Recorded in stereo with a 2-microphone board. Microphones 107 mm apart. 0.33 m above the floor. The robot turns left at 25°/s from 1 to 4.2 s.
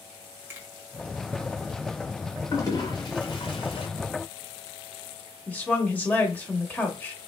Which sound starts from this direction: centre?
A woman speaking, at 5.5 s.